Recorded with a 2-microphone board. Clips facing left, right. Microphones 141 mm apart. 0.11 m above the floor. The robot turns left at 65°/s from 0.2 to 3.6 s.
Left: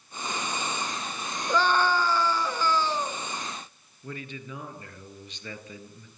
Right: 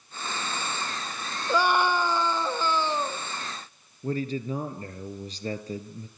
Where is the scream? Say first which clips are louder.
Right 1 dB; 10° right (ahead or behind), 1.1 m.